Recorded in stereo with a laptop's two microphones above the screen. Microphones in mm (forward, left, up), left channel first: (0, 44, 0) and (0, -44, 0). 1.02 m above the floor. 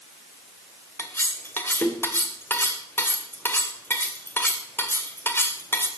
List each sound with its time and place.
1.0 s cutlery clinking: 25° left (ahead or behind), 1.8 m